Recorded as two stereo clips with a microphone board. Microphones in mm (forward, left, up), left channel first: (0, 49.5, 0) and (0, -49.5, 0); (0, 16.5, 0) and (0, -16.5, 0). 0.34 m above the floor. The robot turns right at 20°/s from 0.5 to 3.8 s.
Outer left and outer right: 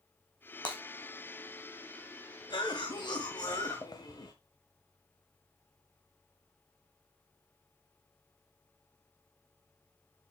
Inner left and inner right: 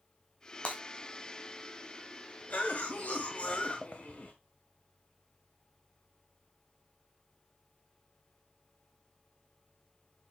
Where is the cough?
50° left (ahead or behind), 1.3 m; by 4.3 s 45° left (ahead or behind), 1.3 m.